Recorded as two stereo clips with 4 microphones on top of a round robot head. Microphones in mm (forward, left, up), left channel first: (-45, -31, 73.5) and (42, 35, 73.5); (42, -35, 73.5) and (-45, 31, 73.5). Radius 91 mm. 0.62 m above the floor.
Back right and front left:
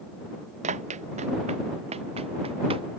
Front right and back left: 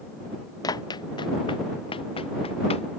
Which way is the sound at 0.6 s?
20° left.